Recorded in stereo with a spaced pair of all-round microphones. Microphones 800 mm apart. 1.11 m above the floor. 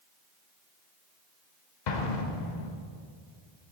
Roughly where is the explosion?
Left.